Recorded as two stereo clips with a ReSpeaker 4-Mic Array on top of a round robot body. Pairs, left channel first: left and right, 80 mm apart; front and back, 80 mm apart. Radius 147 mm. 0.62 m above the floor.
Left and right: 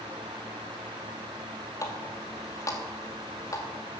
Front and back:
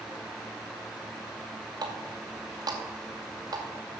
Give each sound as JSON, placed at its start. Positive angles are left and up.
{"t": 1.8, "sound": "a running tap", "azimuth_deg": 140, "distance_m": 2.5}